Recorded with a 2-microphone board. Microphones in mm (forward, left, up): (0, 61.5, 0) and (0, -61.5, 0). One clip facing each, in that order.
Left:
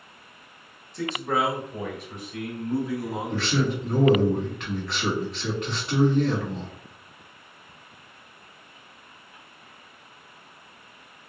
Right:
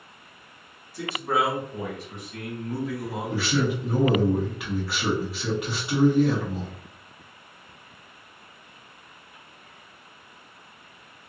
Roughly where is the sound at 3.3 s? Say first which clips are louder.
Right 1 dB; centre.